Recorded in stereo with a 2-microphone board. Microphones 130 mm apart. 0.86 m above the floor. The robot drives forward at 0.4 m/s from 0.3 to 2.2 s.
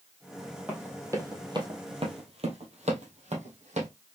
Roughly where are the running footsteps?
Centre.